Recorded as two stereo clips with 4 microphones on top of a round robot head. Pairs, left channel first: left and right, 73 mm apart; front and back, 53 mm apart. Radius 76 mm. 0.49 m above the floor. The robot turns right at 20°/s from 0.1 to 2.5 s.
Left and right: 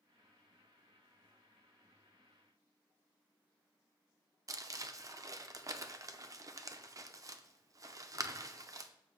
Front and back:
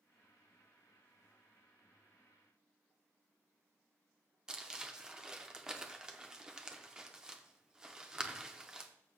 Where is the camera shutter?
I don't hear a camera shutter.